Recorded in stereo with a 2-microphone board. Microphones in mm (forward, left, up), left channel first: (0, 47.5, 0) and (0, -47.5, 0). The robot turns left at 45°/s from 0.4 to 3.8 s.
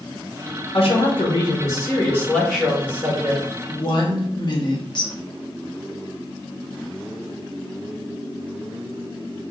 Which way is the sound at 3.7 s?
50° left (ahead or behind).